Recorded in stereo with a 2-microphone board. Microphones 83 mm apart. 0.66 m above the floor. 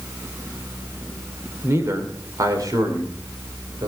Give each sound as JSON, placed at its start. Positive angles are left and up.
{"t": 1.6, "sound": "a man speaking", "side_deg": -30, "distance_m": 2.5}